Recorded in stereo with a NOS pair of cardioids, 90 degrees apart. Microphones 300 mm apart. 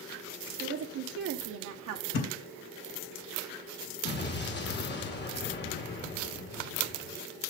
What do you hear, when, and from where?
0.6 s a woman speaking: 35° right, 1.1 m; by 2.0 s 70° right, 1.3 m
2.1 s a thud: 70° left, 3.5 m
4.0 s an explosion: 35° left, 2.5 m